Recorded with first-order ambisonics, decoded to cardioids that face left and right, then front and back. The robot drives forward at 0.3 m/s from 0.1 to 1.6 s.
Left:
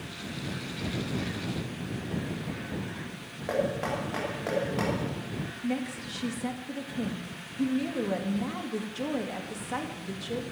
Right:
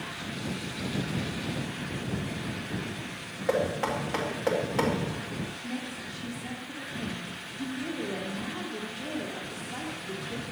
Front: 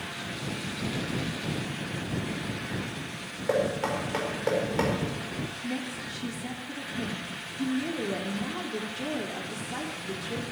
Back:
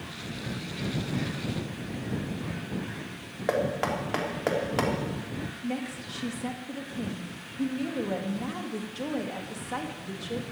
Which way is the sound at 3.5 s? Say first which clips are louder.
Right 2 dB, even; 170° right.